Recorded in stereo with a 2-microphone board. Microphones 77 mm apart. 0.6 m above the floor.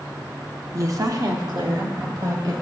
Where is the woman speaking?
40° right (ahead or behind), 0.7 m; by 2.5 s 55° right (ahead or behind), 2 m.